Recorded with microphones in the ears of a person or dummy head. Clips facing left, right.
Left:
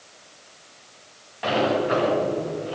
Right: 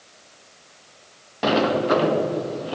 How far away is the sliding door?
About 1.8 m.